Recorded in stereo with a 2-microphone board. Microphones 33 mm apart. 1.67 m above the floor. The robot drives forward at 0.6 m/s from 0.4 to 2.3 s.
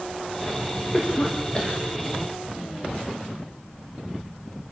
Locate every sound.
0.9 s a cough: 20° left (ahead or behind), 2.5 m; by 1.8 s 25° left (ahead or behind), 2 m